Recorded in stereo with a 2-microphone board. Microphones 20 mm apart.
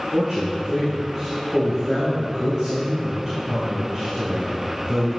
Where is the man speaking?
20° right (ahead or behind), 2.5 m.